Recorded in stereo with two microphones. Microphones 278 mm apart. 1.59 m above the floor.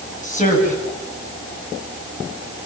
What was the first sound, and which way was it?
A woman speaking, 25° left (ahead or behind).